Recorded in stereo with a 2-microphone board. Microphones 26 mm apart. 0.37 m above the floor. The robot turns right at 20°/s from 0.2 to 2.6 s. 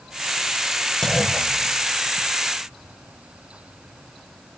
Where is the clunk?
20° left (ahead or behind), 1.1 m; by 2.3 s 40° left (ahead or behind), 1.1 m.